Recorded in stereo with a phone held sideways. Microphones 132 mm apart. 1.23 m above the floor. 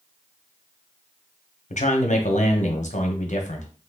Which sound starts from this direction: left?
A man speaking, at 1.7 s.